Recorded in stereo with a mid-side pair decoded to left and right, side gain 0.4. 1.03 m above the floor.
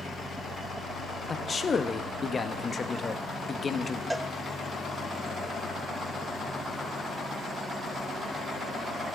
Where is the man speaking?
35° left, 0.9 m.